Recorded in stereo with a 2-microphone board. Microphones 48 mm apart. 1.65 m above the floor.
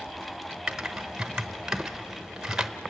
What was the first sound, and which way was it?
Typing on a keyboard, 10° right (ahead or behind).